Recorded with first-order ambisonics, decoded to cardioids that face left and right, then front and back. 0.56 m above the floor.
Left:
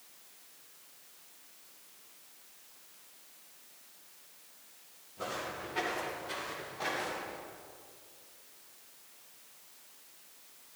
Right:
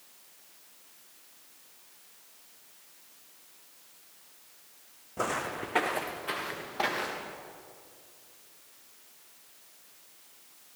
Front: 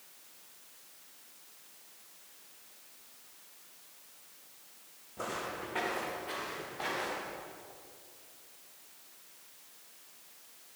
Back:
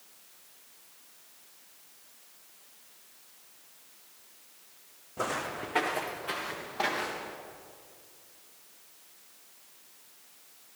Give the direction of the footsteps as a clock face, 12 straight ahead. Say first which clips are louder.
Right 7 dB, back 5 dB; 4 o'clock.